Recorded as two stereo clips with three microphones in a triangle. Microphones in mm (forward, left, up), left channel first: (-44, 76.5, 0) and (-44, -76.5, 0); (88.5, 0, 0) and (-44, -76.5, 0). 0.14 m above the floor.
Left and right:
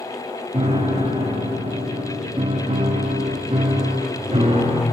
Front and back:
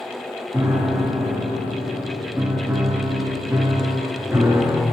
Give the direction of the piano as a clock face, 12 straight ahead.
3 o'clock.